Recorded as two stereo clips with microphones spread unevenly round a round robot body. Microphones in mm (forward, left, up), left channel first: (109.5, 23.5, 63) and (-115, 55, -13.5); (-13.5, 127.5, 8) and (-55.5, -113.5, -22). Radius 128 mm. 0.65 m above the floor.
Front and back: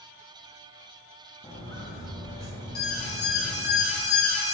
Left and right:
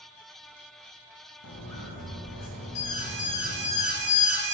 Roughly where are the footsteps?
Ahead left.